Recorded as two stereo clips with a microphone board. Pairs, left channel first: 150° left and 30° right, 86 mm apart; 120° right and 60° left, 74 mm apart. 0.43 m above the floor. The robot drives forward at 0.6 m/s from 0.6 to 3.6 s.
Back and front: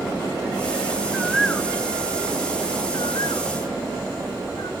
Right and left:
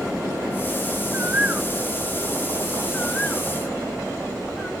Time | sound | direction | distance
1.1 | a bird | 40° left | 0.6 m